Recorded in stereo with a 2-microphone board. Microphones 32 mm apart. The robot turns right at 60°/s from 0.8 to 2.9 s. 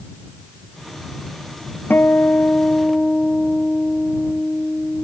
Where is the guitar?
90° left; by 5.1 s 150° left.